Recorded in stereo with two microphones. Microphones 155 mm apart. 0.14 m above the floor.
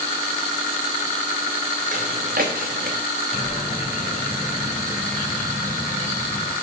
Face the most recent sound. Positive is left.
turn(degrees=60)  # may be behind; listen again after turning